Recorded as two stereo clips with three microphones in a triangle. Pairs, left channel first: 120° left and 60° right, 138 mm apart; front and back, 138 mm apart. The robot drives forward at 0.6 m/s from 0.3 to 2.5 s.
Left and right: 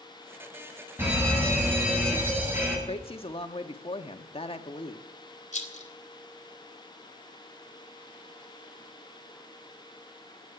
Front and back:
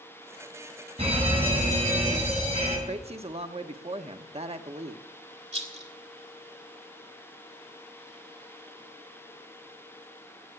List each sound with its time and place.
1.0 s a fire alarm: 135° right, 7.5 m; by 2.8 s 140° right, 8 m
2.9 s a woman speaking: 155° left, 1.2 m
5.5 s a rattle: 145° left, 2.5 m